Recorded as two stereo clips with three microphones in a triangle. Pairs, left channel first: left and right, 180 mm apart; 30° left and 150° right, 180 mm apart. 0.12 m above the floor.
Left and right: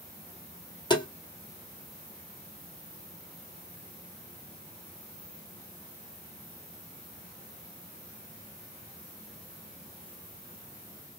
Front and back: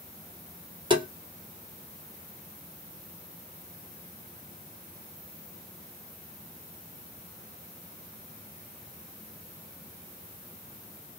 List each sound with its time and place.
0.9 s tapping: 150° left, 1.7 m